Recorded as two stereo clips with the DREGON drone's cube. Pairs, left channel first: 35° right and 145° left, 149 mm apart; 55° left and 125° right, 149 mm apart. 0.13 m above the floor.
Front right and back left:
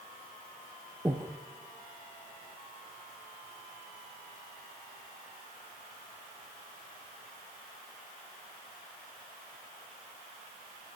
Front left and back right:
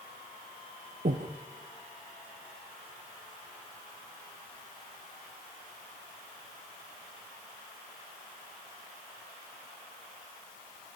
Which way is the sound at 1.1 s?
145° right.